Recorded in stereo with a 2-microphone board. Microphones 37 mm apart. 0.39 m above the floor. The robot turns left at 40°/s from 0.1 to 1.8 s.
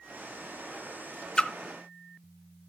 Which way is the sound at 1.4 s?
25° left (ahead or behind).